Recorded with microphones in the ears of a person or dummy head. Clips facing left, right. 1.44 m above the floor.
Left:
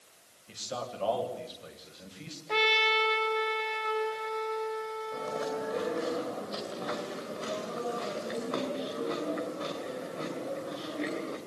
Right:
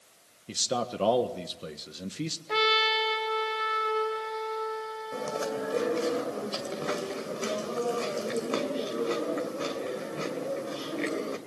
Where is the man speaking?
65° right (ahead or behind), 1.6 m.